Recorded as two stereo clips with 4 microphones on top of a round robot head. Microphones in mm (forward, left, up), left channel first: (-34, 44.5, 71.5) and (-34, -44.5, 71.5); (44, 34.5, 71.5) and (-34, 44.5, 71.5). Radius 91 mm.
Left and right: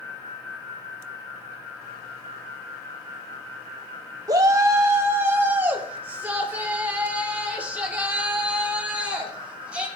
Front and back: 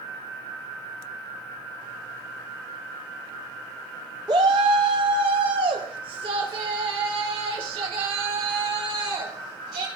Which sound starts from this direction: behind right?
A shout, at 4.3 s.